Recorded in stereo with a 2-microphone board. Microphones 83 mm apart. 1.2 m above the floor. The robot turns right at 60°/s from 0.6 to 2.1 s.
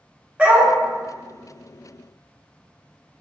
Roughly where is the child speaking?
No child speaking in this recording.